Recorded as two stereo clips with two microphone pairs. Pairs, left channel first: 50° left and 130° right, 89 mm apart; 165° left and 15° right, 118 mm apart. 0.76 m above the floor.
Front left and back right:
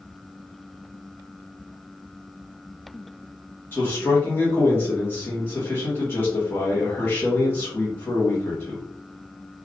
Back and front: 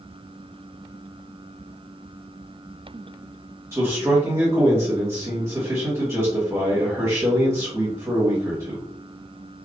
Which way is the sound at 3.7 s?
20° left.